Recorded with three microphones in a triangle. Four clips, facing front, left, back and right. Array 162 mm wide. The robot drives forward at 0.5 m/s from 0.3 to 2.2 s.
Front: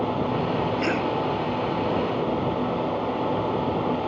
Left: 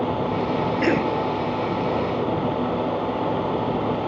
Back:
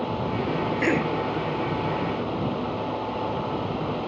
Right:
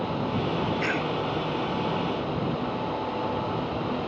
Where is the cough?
110° left.